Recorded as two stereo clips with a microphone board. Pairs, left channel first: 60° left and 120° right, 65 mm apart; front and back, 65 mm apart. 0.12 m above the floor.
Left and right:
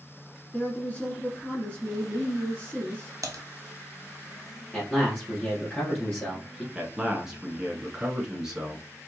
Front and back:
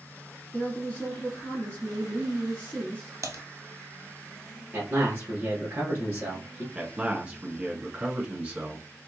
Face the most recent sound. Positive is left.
turn(degrees=175)